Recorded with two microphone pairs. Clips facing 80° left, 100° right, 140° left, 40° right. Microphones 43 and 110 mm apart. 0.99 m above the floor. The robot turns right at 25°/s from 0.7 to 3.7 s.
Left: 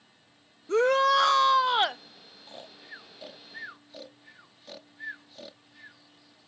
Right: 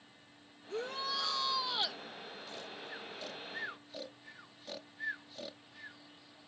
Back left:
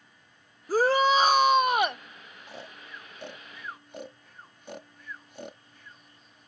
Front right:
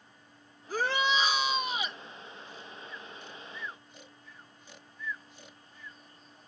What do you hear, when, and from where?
0.7 s a shout: 90° left; by 2.0 s 120° left
2.5 s snoring: 135° left; by 6.0 s 165° left